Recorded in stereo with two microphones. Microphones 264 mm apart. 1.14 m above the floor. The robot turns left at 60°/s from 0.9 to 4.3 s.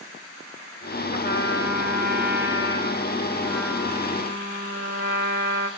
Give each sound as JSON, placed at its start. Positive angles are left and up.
{"t": 1.1, "sound": "a trumpet", "azimuth_deg": 155, "distance_m": 3.0}